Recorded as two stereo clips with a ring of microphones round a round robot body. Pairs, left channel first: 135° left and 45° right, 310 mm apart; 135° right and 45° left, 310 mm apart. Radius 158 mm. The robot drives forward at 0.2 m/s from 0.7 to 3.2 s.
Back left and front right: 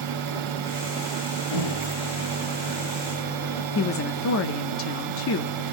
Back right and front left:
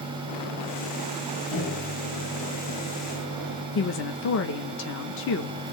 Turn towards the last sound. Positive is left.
turn(degrees=180)